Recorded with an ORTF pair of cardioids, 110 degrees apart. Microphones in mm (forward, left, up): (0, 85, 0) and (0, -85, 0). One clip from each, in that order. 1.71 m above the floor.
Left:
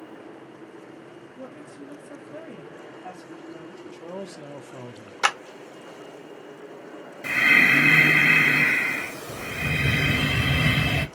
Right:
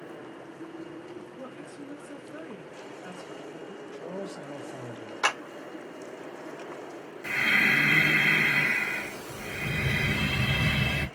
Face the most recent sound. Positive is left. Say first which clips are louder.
# left 6 dB
turn(degrees=45)